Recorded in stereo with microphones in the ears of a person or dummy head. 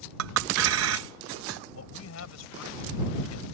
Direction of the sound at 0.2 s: 80° right.